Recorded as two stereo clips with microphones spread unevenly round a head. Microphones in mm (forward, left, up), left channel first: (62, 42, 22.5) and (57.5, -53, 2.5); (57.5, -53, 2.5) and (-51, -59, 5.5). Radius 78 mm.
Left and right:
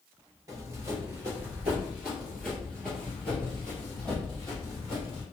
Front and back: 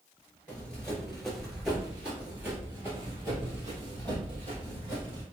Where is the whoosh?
I don't hear a whoosh.